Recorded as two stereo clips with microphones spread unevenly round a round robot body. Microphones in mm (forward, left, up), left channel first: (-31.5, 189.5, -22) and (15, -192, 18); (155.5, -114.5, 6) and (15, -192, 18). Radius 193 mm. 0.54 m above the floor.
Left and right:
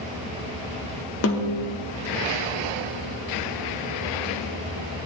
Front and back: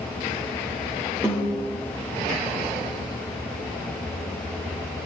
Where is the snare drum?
130° left, 0.8 m.